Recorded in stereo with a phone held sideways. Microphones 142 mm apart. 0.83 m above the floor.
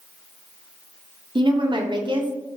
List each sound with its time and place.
1.4 s a woman speaking: 35° right (ahead or behind), 0.7 m